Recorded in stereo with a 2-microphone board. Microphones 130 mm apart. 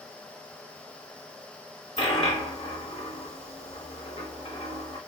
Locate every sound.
2.0 s a dropped coin: 55° left (ahead or behind), 1.5 m